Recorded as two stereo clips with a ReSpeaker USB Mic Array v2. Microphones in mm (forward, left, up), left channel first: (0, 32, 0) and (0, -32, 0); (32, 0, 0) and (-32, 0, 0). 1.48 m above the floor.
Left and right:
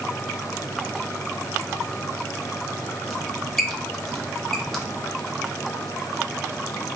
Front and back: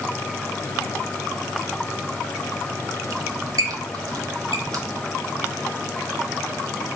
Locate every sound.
3.1 s a squeak: 175° left, 0.7 m